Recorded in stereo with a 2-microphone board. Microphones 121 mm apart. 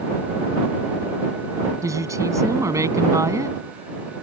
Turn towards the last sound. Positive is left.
turn(degrees=-25)  # may be behind; listen again after turning